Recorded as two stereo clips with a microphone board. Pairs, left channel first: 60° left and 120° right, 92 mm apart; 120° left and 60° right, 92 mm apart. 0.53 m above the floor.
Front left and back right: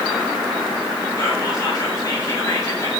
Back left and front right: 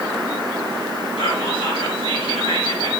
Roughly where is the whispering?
Behind left.